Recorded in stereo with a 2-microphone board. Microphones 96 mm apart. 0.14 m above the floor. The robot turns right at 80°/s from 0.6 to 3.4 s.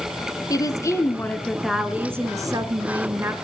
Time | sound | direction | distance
0.5 | a woman speaking | 100° left | 1.4 m